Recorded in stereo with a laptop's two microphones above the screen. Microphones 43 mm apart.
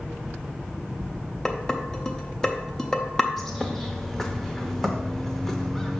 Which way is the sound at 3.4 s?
5° left (ahead or behind).